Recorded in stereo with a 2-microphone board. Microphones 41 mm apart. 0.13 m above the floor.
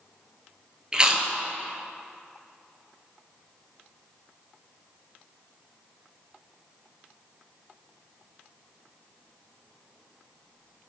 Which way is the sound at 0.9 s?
20° right (ahead or behind).